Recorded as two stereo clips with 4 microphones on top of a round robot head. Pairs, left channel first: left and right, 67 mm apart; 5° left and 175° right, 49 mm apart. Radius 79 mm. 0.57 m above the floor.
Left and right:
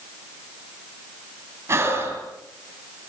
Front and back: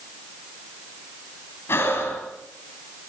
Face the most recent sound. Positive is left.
turn(degrees=-40)